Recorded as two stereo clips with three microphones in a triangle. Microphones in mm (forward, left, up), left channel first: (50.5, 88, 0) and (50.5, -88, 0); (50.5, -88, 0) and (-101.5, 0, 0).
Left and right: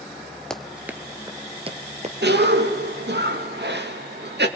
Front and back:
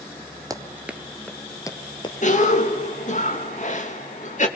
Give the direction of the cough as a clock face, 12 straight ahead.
3 o'clock.